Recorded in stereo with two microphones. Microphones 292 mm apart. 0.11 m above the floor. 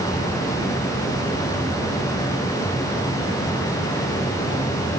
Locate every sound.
Only background noise.